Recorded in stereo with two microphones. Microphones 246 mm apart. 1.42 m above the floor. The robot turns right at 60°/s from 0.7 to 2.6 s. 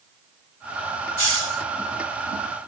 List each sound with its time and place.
1.2 s a hiss: 80° left; by 1.6 s 70° left (ahead or behind)